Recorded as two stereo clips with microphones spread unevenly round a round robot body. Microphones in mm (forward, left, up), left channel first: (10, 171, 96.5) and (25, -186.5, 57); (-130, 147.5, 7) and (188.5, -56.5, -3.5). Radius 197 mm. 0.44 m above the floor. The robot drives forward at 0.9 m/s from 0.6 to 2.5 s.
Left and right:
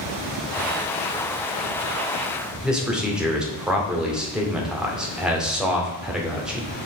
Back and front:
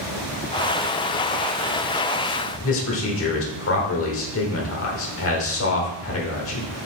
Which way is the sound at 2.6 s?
170° right.